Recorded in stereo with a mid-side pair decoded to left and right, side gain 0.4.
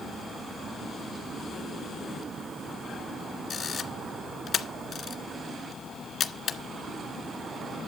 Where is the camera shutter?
55° left, 1.9 m.